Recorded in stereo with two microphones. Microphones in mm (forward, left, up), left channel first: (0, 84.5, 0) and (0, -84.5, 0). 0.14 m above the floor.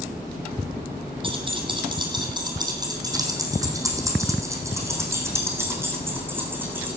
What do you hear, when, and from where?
1.2 s keys jangling: 30° right (ahead or behind), 4 m; by 7.0 s 10° right (ahead or behind), 7 m